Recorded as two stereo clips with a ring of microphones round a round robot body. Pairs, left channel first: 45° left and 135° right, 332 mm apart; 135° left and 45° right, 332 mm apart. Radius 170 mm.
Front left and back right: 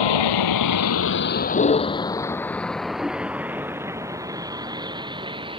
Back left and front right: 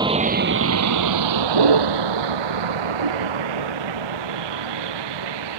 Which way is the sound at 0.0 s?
35° left.